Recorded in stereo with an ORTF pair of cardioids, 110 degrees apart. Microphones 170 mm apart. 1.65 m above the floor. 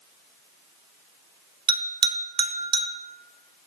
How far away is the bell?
About 0.8 m.